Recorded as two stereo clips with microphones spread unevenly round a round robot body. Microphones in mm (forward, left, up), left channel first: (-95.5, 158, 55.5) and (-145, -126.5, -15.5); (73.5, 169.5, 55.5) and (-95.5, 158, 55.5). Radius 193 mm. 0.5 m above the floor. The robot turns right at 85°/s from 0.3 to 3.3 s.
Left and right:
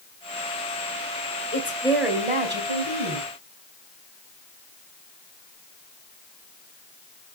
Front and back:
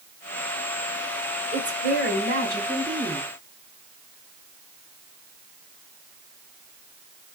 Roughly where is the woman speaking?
Behind left.